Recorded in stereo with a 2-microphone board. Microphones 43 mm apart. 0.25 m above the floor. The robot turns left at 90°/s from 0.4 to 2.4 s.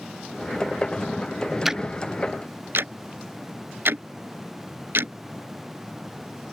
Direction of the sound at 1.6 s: 5° right (ahead or behind).